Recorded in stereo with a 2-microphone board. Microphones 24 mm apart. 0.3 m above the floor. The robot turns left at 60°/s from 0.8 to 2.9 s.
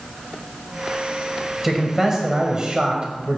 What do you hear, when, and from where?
1.6 s a man speaking: 15° right, 1.2 m; by 3.4 s 90° right, 1.2 m